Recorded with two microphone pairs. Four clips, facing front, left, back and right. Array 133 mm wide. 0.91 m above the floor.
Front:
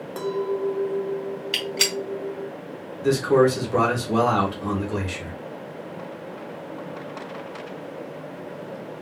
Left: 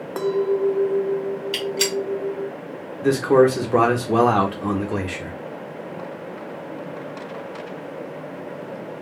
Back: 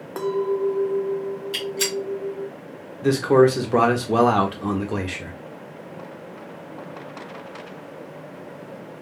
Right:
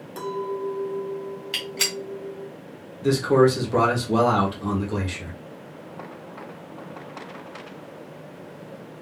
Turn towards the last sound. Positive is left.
turn(degrees=130)